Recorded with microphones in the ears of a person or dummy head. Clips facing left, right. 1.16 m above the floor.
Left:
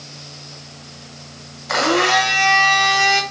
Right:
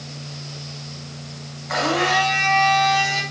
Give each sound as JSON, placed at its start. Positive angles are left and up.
{"t": 1.7, "sound": "a blender", "side_deg": 55, "distance_m": 1.5}